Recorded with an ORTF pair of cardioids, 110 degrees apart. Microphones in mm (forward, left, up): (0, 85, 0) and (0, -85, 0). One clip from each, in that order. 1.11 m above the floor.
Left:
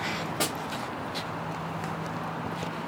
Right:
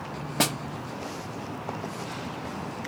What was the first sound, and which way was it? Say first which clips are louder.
A snare drum: right 5 dB; 30° right.